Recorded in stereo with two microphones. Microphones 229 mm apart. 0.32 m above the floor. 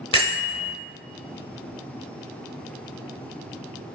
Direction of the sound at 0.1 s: 25° left (ahead or behind).